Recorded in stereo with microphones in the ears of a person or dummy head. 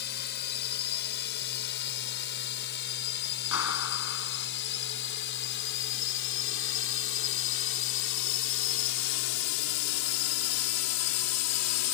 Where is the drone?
50° left (ahead or behind); by 11.9 s 75° left (ahead or behind).